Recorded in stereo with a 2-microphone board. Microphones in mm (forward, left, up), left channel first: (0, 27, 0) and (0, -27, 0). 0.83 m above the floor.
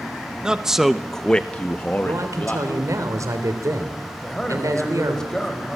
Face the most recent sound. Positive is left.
turn(degrees=10)  # may be behind; listen again after turning